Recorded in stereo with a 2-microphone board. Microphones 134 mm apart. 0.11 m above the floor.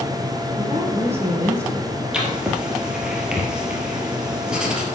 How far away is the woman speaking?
About 4.5 m.